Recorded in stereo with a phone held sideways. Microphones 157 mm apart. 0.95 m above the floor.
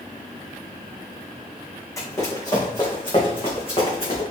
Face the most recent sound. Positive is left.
turn(degrees=40)  # may be behind; listen again after turning